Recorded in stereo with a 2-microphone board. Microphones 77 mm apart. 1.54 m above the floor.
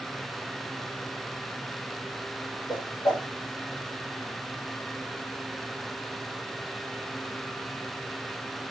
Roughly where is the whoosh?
Left.